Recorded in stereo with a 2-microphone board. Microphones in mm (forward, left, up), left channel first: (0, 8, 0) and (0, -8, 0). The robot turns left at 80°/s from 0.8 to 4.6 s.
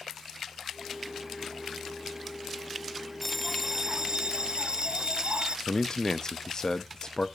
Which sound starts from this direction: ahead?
A bell, at 3.2 s.